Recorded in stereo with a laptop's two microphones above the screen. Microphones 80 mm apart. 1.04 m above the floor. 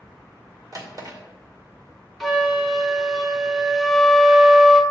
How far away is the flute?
About 0.8 m.